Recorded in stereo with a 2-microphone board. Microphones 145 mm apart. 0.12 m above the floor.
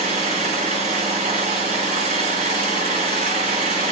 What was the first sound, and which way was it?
An engine running, 70° right (ahead or behind).